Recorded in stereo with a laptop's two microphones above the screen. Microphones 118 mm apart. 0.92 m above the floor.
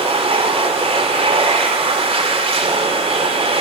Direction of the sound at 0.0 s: 55° right (ahead or behind).